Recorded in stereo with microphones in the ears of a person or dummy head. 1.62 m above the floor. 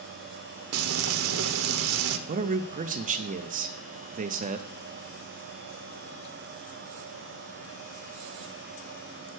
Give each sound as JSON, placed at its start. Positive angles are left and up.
{"t": 0.7, "sound": "frying", "side_deg": -80, "distance_m": 0.9}
{"t": 2.3, "sound": "a man speaking", "side_deg": -40, "distance_m": 0.7}